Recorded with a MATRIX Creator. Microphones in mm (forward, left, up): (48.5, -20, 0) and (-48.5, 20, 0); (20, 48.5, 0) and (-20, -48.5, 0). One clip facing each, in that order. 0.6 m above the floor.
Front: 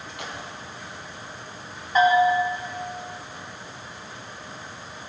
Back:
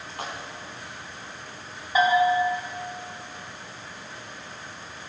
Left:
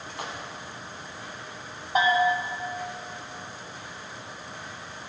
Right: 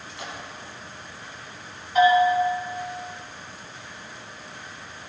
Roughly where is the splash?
Left.